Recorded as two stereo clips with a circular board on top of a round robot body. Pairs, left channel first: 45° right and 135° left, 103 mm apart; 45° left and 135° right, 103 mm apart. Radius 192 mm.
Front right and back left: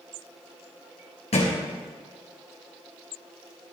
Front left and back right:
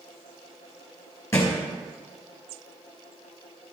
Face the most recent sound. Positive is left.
turn(degrees=-20)